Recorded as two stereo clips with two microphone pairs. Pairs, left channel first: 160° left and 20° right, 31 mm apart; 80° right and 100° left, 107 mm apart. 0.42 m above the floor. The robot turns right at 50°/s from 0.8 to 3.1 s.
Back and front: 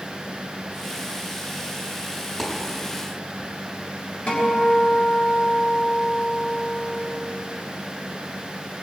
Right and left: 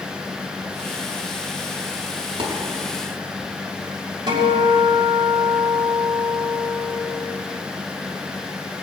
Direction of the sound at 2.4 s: 80° left.